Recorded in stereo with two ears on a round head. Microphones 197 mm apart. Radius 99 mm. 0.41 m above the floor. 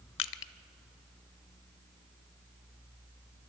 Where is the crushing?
60° left (ahead or behind), 0.6 m.